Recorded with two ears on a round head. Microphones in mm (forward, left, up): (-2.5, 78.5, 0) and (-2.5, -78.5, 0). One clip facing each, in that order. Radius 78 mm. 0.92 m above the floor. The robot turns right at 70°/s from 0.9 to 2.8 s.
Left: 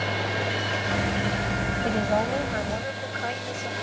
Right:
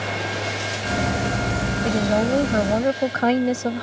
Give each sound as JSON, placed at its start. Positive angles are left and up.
{"t": 1.8, "sound": "a woman speaking", "azimuth_deg": -165}